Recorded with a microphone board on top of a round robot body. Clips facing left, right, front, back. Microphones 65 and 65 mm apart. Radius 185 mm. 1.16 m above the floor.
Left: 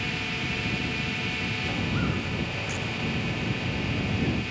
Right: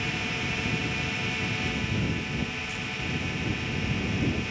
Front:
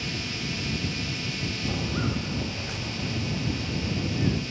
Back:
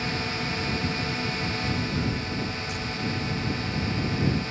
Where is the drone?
175° right.